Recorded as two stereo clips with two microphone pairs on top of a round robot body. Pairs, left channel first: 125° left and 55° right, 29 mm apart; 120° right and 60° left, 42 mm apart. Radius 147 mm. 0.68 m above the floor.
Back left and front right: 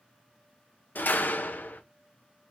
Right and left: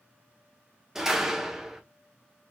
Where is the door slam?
135° left, 1.5 m.